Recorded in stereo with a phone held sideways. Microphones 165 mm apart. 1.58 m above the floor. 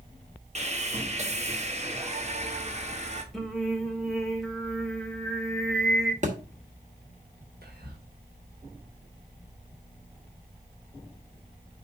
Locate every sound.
0.6 s sawing: 45° right (ahead or behind), 1.2 m
3.3 s singing: centre (ahead or behind), 1.4 m
6.2 s a thud: 50° right (ahead or behind), 1.4 m
7.6 s whispering: 70° right (ahead or behind), 1.9 m